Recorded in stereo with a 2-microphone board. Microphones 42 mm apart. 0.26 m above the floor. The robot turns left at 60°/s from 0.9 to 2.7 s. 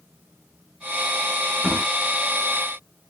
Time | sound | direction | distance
1.6 | a drawer | 15° right (ahead or behind) | 0.8 m